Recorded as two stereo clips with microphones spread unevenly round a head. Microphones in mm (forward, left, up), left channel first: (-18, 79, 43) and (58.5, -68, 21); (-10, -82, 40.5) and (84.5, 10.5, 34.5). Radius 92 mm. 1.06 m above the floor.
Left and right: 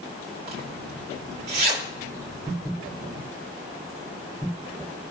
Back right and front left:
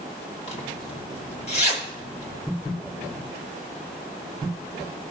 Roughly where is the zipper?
Right.